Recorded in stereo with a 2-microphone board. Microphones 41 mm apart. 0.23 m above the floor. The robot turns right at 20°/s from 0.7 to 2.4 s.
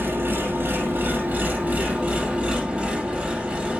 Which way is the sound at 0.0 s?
65° right.